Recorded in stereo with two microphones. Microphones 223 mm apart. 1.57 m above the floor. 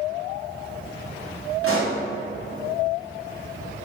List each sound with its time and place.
1.6 s a pop: 70° right (ahead or behind), 1.3 m